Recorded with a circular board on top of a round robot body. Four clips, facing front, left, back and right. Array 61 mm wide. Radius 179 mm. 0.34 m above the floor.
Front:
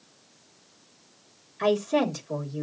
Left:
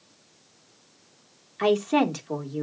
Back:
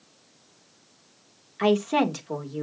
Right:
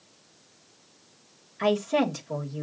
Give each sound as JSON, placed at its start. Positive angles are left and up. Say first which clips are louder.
{"t": 1.6, "sound": "a woman speaking", "louder": "left 2 dB, back 2 dB", "azimuth_deg": 140, "distance_m": 2.0}